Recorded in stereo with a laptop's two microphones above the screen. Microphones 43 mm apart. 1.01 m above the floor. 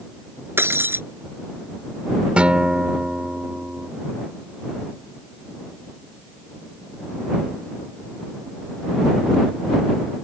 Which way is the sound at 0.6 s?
60° right (ahead or behind).